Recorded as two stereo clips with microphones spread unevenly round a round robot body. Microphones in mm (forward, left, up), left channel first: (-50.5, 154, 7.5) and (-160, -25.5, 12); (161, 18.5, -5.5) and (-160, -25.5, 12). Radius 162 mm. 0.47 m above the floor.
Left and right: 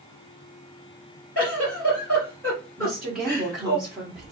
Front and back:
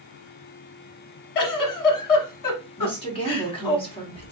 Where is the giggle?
25° right, 1.1 m.